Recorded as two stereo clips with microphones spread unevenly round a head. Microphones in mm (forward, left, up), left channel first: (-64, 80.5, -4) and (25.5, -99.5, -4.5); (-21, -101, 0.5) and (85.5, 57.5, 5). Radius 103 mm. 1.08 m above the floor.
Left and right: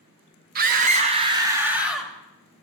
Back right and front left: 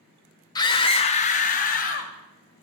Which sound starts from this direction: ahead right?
A scream, at 0.6 s.